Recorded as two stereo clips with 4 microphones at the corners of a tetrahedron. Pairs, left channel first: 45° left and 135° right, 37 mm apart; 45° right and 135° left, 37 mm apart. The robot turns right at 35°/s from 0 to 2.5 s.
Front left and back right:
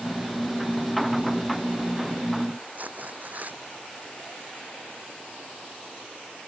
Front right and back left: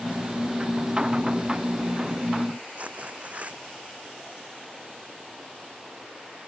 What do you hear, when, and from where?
2.8 s tearing paper: 175° right